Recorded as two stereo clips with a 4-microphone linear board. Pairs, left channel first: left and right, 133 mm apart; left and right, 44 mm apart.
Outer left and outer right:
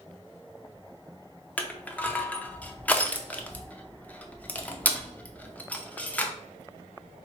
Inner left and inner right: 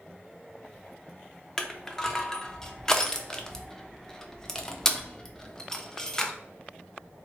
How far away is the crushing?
About 0.5 m.